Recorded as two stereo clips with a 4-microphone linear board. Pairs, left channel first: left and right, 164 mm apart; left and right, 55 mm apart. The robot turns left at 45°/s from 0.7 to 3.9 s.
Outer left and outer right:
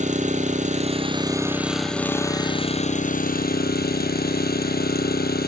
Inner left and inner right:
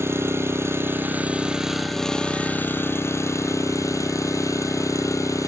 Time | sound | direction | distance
0.0 | an engine running | 130° right | 2.5 m